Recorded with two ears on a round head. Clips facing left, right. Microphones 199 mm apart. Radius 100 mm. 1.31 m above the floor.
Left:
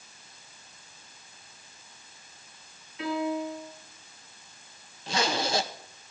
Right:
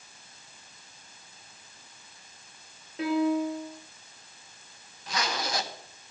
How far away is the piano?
About 5 m.